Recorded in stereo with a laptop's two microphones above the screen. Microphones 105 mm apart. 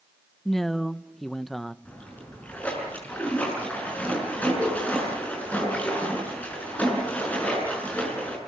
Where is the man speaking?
5° left (ahead or behind), 0.9 m.